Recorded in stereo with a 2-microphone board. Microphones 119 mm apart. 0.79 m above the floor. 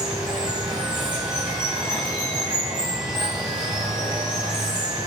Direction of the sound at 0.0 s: 40° right (ahead or behind).